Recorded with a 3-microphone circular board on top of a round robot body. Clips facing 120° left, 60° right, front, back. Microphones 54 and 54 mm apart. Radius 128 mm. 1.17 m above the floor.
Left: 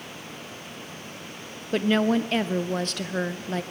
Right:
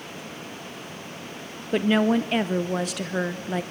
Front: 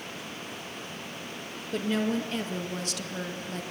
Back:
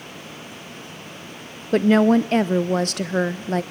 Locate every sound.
1.7 s a woman speaking: 140° right, 0.6 m